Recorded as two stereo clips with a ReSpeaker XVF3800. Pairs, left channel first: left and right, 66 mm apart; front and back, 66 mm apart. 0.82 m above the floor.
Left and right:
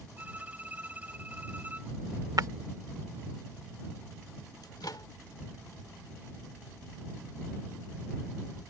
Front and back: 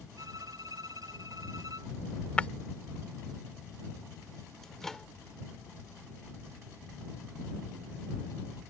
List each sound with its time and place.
0.2 s a violin: 160° right
2.4 s breaking glass: 70° right
4.6 s a microwave: 85° left